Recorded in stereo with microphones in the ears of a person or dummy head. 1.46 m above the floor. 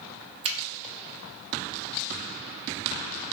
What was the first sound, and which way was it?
A finger snap, 35° right (ahead or behind).